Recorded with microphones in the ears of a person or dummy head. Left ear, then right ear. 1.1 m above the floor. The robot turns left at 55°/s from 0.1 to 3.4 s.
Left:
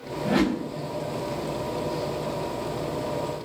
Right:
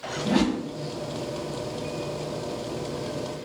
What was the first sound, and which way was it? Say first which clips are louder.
A whoosh: left 1 dB; 5° left (ahead or behind).